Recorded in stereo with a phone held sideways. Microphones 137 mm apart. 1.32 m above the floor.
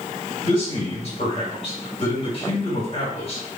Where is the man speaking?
40° left (ahead or behind), 4 m.